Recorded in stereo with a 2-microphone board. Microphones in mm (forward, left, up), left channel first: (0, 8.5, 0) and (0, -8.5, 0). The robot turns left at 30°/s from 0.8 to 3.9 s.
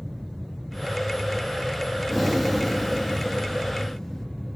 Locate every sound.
2.1 s breathing: 5° right (ahead or behind), 0.6 m; by 4.3 s 20° left (ahead or behind), 0.6 m